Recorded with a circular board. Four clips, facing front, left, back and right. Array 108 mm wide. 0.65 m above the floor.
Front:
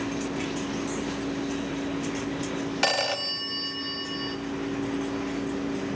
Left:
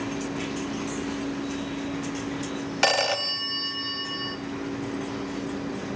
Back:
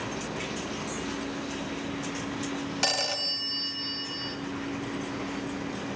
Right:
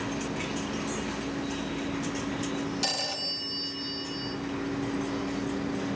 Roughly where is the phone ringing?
Ahead left.